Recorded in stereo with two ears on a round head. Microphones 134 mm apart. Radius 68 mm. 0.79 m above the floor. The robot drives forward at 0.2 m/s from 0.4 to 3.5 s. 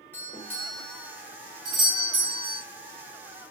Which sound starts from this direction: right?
A doorbell, at 1.6 s.